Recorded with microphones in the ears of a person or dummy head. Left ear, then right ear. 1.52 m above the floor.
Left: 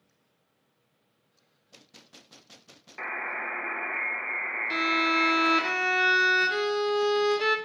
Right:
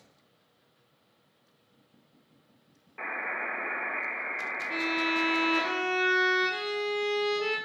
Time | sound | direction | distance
3.0 | a buzzer | 25° left (ahead or behind) | 1.1 m
4.7 | a violin | 65° left (ahead or behind) | 0.7 m